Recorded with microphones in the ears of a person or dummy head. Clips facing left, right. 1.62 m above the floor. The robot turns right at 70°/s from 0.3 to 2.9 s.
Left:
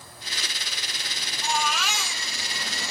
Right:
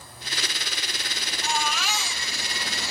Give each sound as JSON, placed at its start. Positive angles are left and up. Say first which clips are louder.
{"t": 1.4, "sound": "a baby crying", "louder": "left 1 dB", "azimuth_deg": 85, "distance_m": 2.5}